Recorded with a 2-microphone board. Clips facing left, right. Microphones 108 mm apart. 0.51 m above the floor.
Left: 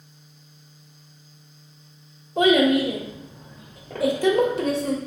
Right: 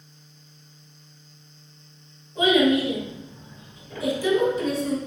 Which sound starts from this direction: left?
A child speaking, at 2.4 s.